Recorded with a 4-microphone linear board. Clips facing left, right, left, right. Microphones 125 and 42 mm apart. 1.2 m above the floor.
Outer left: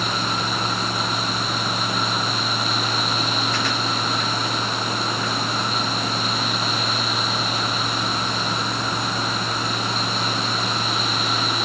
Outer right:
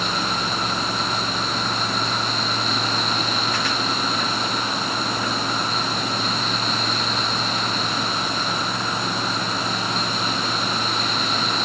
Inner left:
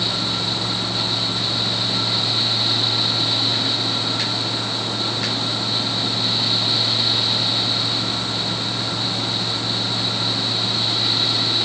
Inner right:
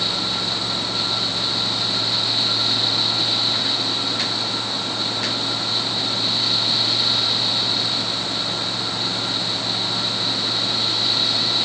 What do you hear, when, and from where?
Only background noise.